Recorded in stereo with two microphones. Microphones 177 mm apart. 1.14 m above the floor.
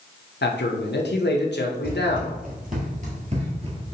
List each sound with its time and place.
0.4 s a man speaking: 75° left (ahead or behind), 0.7 m
1.8 s running footsteps: 55° right (ahead or behind), 2 m; by 3.9 s 30° right (ahead or behind), 1.3 m